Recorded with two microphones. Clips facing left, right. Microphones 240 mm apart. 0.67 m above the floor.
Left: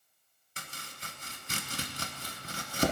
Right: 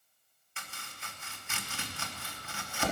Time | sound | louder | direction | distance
0.6 | chopping | left 2 dB | 40° left (ahead or behind) | 1.0 m